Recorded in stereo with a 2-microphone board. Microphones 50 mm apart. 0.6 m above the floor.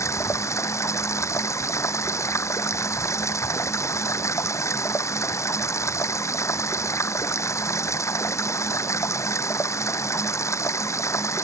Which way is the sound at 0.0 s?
75° left (ahead or behind).